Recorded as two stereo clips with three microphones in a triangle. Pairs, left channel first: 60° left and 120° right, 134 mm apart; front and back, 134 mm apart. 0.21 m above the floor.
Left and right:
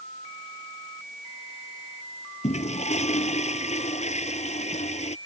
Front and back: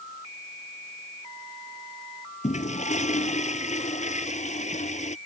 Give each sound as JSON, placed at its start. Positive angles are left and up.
{"t": 2.4, "sound": "a toilet flushing", "azimuth_deg": 30}